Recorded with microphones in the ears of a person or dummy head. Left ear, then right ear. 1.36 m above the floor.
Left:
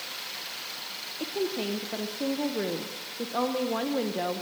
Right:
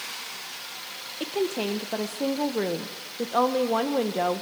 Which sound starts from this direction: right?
A woman speaking, at 1.2 s.